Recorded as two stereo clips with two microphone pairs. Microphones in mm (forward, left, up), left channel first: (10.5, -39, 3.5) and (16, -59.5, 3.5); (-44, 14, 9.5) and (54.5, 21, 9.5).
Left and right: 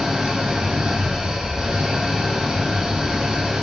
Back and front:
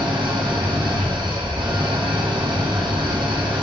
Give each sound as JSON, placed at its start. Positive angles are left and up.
{"t": 0.0, "sound": "an engine running", "azimuth_deg": -35, "distance_m": 2.5}